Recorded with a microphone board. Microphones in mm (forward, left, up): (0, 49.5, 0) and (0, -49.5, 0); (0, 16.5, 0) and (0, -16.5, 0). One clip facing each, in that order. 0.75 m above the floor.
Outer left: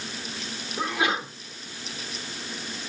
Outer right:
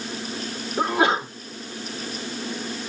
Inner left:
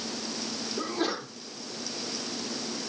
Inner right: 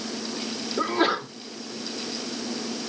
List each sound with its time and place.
0.8 s a sneeze: 30° right (ahead or behind), 2 m